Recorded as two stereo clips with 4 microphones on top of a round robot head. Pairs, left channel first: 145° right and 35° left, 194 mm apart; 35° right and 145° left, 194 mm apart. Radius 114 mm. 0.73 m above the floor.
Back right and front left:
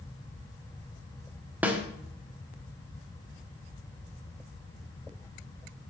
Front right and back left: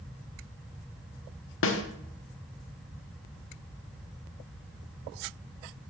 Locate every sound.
1.6 s a snare drum: 45° right, 1.1 m